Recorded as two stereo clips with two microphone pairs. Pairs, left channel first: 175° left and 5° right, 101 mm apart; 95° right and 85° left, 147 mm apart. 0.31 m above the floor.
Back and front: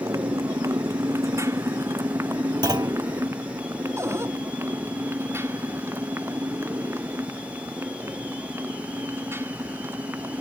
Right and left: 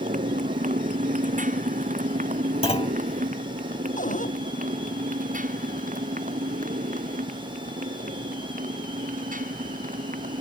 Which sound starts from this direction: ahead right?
A clunk, at 2.6 s.